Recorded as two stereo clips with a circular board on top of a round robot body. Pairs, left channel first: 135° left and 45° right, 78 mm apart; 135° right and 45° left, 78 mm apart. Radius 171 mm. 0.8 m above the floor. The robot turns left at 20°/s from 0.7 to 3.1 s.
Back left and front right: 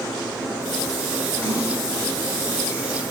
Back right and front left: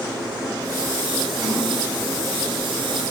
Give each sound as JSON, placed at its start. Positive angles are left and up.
{"t": 1.4, "sound": "a splash", "azimuth_deg": 125, "distance_m": 4.5}